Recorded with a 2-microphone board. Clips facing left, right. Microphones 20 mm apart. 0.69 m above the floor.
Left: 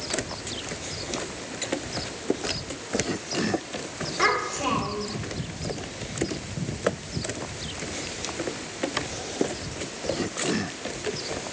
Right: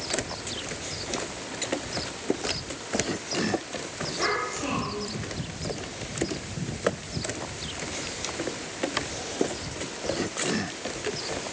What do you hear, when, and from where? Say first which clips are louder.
4.2 s a child speaking: left 5 dB; 40° left (ahead or behind), 1.1 m